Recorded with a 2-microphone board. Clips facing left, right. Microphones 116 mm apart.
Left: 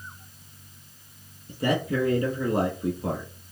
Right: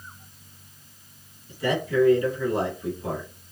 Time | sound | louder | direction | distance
1.5 | a man speaking | even | 30° left (ahead or behind) | 4 m